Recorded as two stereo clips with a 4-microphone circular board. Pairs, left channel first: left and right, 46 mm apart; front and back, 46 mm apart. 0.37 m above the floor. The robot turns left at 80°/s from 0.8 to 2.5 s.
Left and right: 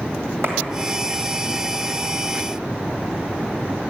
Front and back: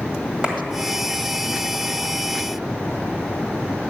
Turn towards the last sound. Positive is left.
turn(degrees=110)